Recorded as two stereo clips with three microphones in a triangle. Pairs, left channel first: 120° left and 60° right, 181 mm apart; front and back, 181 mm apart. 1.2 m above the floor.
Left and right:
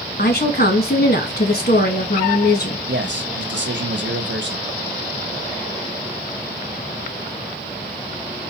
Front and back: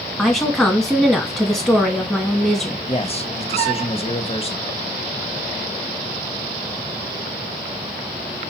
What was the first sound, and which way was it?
A woman speaking, 90° left.